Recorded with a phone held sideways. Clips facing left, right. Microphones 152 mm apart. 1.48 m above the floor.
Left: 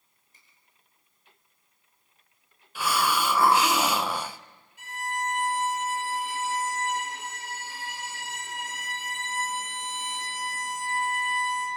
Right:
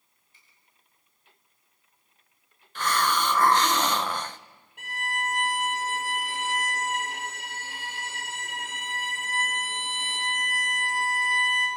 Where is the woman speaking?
No woman speaking in this recording.